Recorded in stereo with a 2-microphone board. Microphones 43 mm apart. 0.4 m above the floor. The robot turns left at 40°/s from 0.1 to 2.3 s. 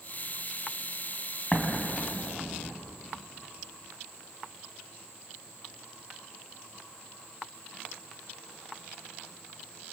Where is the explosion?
20° left (ahead or behind), 3 m; by 2.8 s 50° left (ahead or behind), 3 m.